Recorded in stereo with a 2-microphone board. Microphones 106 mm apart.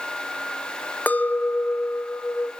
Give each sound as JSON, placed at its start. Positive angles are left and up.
{"t": 1.1, "sound": "a clink", "side_deg": 15, "distance_m": 0.7}